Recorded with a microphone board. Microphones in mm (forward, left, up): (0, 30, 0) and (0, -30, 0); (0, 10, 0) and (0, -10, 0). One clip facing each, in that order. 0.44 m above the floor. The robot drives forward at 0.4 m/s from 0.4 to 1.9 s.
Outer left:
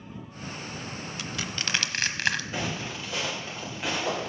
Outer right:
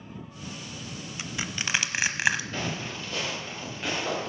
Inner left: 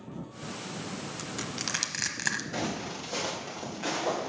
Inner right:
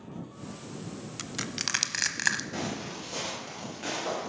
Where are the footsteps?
10° left (ahead or behind), 5 m; by 4.3 s 5° left (ahead or behind), 7 m.